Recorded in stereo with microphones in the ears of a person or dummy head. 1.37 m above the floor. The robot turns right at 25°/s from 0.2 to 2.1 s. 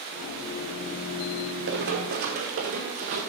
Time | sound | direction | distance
1.7 | running footsteps | 60° right (ahead or behind) | 3 m